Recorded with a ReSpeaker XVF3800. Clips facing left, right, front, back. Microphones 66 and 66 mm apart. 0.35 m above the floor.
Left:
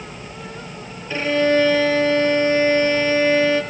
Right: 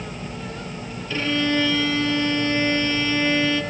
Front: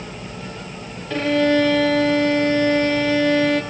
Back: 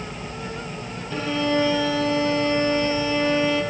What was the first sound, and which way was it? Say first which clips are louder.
A violin: left 5 dB, front 6 dB; 25° left.